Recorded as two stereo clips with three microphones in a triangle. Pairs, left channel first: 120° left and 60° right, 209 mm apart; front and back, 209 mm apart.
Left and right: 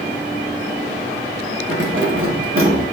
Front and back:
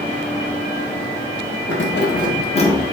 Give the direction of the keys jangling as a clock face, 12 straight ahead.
1 o'clock.